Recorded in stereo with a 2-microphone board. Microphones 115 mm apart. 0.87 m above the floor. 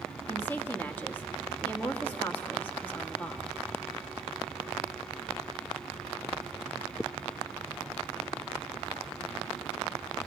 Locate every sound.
0.3 s a woman speaking: 15° left (ahead or behind), 1.6 m